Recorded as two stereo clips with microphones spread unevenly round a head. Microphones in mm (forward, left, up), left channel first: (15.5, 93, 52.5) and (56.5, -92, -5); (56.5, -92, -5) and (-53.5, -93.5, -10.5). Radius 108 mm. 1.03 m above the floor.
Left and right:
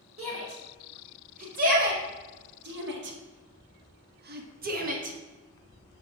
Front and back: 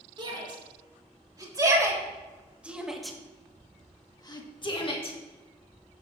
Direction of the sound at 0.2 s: 135° right.